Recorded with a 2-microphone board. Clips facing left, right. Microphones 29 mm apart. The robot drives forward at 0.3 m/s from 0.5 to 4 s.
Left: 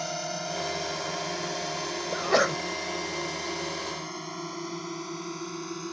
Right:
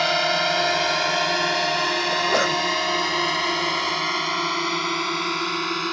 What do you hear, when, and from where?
0.0 s a drone: 70° right (ahead or behind)
2.1 s a sneeze: 5° left (ahead or behind)